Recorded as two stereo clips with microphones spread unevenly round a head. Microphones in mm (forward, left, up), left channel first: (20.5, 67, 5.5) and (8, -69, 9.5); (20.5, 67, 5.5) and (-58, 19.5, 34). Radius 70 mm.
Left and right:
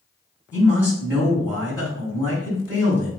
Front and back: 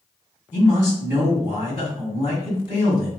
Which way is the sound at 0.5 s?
15° right.